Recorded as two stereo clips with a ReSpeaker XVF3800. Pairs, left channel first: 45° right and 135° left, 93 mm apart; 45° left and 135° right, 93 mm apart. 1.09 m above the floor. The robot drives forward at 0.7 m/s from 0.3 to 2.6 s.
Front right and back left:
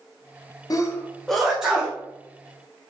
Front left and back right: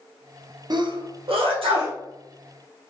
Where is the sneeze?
95° right, 0.5 m; by 2.0 s 150° right, 1.1 m.